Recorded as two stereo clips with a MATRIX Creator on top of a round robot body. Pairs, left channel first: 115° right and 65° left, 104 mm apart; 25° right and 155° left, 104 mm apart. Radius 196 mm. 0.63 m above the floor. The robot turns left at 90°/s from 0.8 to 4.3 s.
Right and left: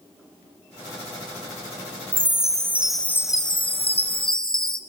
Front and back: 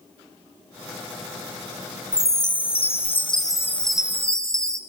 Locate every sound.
2.1 s a chime: 50° left, 1.3 m; by 4.8 s 145° right, 1.3 m